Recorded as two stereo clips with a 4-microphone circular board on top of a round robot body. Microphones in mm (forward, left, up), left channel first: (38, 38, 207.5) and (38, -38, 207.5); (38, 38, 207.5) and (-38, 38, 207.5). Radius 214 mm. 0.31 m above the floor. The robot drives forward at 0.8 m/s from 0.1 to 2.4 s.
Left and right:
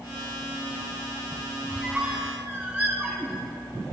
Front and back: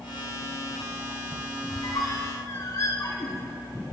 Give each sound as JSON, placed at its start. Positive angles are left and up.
{"t": 1.7, "sound": "a squeak", "azimuth_deg": -10, "distance_m": 1.4}